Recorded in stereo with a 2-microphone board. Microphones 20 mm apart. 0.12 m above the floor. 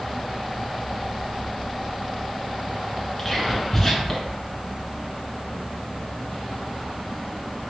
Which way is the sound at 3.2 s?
10° left (ahead or behind).